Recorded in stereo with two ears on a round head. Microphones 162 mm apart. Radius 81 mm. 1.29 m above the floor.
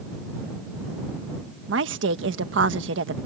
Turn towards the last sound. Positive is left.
turn(degrees=-70)  # may be behind; listen again after turning